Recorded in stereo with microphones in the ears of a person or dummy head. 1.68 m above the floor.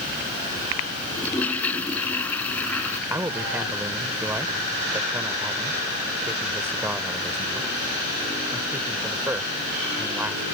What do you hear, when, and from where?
1.1 s a toilet flushing: 10° left (ahead or behind)
3.1 s a man speaking: 15° right (ahead or behind)